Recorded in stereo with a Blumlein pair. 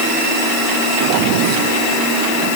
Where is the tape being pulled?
I don't hear tape being pulled.